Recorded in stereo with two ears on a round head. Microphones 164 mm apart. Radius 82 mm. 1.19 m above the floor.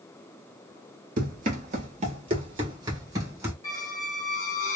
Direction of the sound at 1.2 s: 45° right (ahead or behind).